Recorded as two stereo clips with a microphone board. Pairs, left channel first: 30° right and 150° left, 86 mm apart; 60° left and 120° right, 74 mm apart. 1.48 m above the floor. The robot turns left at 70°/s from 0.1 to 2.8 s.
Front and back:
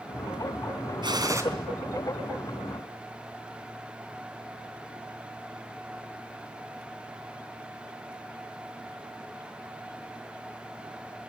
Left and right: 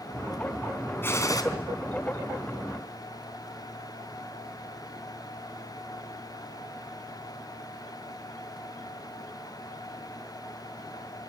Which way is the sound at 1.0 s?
120° left.